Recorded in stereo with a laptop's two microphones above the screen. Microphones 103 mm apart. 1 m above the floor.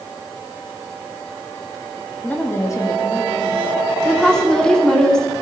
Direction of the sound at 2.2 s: 10° left (ahead or behind).